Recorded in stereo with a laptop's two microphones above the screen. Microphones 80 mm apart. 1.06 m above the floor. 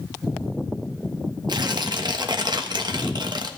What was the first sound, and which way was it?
Tearing paper, 60° right (ahead or behind).